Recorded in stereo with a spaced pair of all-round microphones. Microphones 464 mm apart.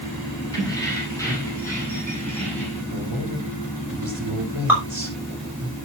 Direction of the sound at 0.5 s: 5° left (ahead or behind).